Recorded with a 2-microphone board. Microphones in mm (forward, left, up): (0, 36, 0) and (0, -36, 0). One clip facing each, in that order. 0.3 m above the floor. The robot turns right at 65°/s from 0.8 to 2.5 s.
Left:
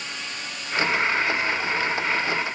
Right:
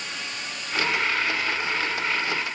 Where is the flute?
I don't hear a flute.